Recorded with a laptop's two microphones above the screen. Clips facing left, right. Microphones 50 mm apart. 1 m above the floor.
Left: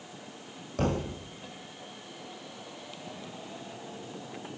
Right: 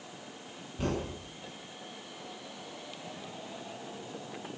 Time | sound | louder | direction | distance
0.8 | a thud | left 4 dB | 85° left | 7.5 m